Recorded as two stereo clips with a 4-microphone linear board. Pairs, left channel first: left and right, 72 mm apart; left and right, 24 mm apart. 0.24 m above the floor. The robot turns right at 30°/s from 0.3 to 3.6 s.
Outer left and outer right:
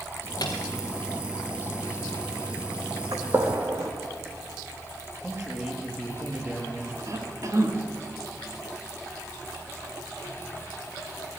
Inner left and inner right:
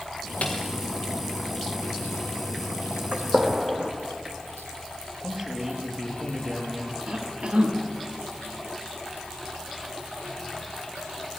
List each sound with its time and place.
0.4 s a snare drum: 60° left (ahead or behind), 3 m; by 0.6 s 55° left (ahead or behind), 3 m
3.1 s a gunshot: 55° right (ahead or behind), 2.5 m; by 3.9 s 40° right (ahead or behind), 2.5 m
5.2 s a man speaking: 35° right (ahead or behind), 5.5 m
7.1 s a cough: 50° right (ahead or behind), 2.5 m